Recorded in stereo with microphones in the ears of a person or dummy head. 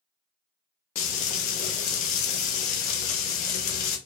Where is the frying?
55° left (ahead or behind), 0.7 m.